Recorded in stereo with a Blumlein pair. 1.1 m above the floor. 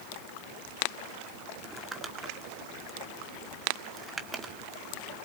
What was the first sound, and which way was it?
Crumpling, 15° right.